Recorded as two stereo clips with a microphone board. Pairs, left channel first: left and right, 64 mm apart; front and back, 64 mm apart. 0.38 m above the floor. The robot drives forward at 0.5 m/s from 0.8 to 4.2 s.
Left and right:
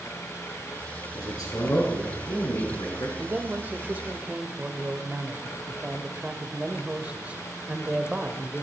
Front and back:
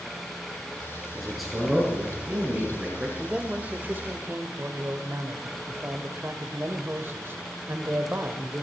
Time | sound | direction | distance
1.1 | a man speaking | 90° left | 5.5 m
3.2 | a man speaking | 105° right | 0.8 m